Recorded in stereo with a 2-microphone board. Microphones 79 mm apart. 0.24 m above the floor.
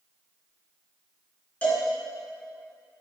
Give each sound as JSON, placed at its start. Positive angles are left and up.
{"t": 1.6, "sound": "a cowbell", "side_deg": 15, "distance_m": 3.0}